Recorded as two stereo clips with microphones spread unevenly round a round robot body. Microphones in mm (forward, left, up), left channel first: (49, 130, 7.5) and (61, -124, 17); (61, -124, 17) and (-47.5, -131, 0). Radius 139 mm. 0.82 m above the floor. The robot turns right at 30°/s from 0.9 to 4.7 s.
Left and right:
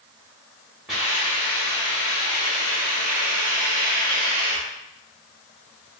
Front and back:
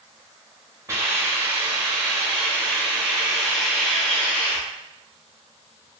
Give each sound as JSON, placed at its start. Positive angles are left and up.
{"t": 0.9, "sound": "a hiss", "azimuth_deg": 180, "distance_m": 1.1}